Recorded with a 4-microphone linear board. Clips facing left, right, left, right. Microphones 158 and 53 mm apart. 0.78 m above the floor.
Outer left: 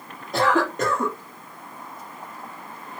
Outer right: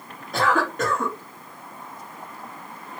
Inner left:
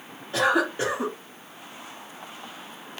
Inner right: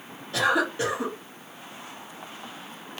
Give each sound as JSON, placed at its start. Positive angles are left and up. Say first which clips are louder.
{"t": 0.3, "sound": "a cough", "louder": "outer left 2 dB, inner left 1 dB", "side_deg": 25, "distance_m": 0.9}